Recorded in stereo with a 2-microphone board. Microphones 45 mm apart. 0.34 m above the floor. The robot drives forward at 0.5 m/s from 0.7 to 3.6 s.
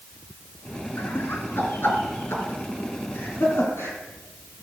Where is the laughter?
55° left (ahead or behind), 4 m; by 4.0 s 70° left (ahead or behind), 3.5 m.